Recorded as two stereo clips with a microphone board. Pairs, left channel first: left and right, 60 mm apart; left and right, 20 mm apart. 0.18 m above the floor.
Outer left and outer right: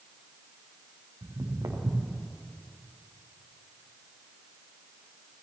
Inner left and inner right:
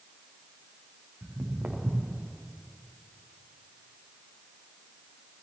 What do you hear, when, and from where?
1.2 s footsteps: 90° right, 3 m; by 2.2 s 80° right, 3 m